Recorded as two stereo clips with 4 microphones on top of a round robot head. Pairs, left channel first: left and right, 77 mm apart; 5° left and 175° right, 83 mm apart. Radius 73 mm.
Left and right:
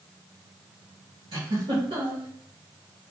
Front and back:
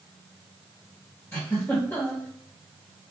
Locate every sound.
1.3 s a giggle: 70° right, 1.2 m